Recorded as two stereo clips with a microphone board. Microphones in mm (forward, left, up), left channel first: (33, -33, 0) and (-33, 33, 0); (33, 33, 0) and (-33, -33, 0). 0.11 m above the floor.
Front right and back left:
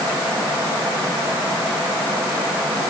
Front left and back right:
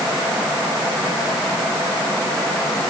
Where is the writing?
I don't hear writing.